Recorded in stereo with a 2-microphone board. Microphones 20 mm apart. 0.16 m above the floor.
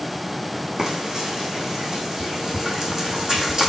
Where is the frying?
30° right (ahead or behind), 4.5 m.